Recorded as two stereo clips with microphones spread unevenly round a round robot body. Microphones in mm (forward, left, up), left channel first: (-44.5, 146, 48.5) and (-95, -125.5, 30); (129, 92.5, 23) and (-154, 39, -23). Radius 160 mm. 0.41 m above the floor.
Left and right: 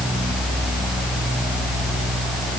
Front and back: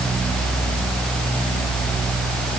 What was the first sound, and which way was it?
Only background noise.